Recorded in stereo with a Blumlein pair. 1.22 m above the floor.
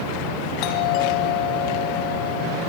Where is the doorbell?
40° left, 3 m.